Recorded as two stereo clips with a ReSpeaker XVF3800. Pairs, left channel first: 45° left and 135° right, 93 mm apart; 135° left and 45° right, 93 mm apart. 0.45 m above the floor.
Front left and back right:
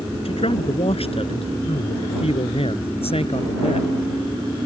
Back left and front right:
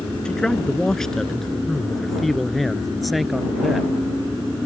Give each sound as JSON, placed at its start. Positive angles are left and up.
{"t": 0.2, "sound": "a man speaking", "azimuth_deg": 55}